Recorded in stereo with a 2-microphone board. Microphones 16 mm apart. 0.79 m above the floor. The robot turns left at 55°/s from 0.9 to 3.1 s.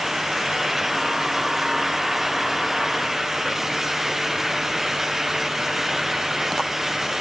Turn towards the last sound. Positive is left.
No sound to turn to.